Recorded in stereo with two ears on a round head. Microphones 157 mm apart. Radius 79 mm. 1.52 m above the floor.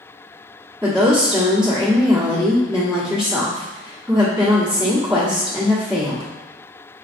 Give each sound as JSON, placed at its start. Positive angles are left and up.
{"t": 0.8, "sound": "a woman speaking", "side_deg": -5, "distance_m": 1.2}